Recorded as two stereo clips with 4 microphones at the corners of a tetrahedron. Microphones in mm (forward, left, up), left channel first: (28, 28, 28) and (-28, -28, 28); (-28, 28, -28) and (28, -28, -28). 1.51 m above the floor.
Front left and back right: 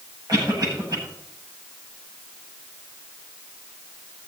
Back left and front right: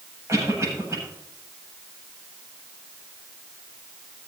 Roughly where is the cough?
Right.